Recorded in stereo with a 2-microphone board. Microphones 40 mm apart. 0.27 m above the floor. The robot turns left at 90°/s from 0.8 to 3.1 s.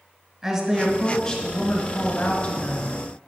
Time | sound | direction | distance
0.4 | a woman speaking | 155° right | 1.5 m